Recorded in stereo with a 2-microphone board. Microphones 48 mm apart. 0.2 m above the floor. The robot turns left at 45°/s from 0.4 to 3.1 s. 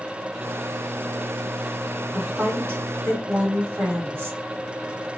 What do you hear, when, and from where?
2.1 s a woman speaking: 55° right, 1.8 m; by 4.4 s 95° right, 1.8 m